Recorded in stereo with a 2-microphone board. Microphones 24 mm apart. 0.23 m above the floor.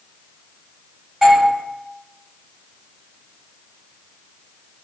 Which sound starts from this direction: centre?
A doorbell, at 1.2 s.